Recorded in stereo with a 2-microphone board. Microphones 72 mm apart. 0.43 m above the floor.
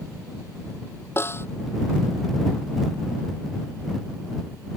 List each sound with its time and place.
1.2 s a snare drum: 35° left (ahead or behind)